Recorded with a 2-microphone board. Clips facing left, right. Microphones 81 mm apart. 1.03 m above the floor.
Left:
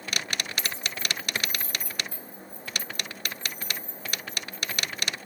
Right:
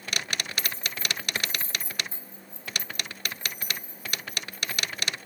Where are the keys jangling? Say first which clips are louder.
Even; 50° right (ahead or behind), 1.4 m; by 5.1 s 10° right (ahead or behind), 4 m.